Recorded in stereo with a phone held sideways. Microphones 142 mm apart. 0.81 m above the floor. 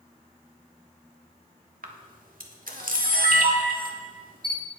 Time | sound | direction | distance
1.8 | a camera shutter | 80° right | 1.4 m